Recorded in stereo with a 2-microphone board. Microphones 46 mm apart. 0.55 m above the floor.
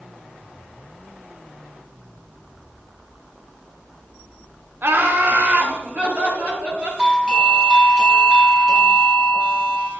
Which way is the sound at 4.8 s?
50° right (ahead or behind).